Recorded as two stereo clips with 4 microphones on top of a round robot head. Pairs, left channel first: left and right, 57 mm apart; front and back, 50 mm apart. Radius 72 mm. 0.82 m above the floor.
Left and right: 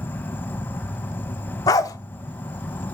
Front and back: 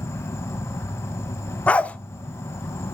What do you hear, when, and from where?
0.0 s an insect: 30° left, 1.1 m
1.7 s a dog barking: 65° left, 0.6 m